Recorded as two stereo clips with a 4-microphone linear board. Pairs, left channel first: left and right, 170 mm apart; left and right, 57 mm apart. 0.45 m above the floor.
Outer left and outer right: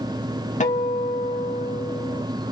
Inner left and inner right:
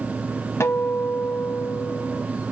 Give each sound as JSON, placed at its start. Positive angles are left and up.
{"t": 0.6, "sound": "a guitar", "side_deg": 45, "distance_m": 0.7}